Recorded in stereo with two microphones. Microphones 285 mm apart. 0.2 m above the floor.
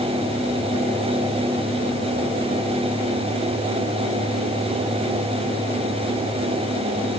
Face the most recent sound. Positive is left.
No sound to turn to.